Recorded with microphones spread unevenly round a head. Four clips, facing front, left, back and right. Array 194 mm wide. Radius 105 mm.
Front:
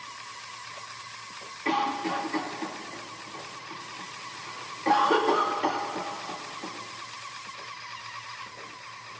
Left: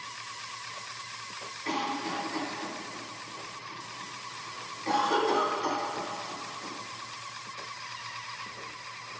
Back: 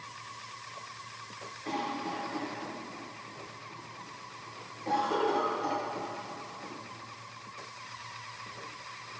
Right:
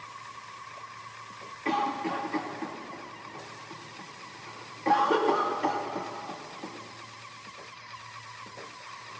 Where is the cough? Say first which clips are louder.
Right 4 dB, front 7 dB; 30° right, 2.5 m.